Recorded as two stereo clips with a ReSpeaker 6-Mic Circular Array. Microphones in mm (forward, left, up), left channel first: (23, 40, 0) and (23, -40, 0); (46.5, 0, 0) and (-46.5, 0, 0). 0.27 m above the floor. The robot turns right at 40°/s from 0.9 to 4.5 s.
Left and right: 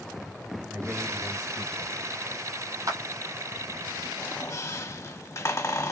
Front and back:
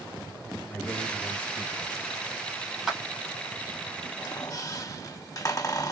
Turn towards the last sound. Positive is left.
turn(degrees=40)